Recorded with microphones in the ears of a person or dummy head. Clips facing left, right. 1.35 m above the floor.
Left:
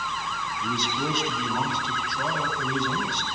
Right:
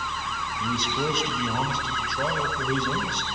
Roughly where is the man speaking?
Right.